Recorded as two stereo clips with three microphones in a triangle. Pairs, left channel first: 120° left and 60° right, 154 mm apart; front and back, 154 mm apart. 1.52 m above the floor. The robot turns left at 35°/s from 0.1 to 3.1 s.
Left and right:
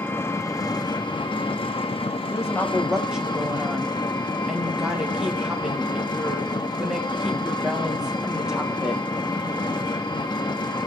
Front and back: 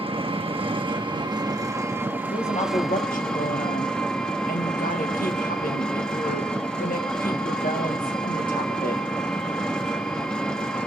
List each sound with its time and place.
0.0 s an engine running: 175° right, 1.0 m; by 10.9 s 80° left, 1.0 m
2.3 s a woman speaking: 55° left, 1.4 m; by 9.0 s 25° left, 1.4 m